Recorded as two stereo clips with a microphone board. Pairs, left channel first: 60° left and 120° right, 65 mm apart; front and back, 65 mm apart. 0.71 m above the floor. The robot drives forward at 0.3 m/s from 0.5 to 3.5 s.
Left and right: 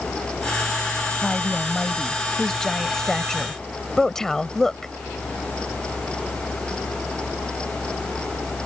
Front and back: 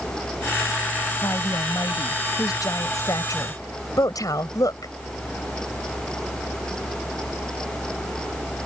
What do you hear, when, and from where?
1.2 s a woman speaking: 20° right; by 4.9 s 25° right